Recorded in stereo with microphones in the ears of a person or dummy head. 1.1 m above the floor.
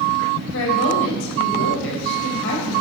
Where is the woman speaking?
80° left, 5 m.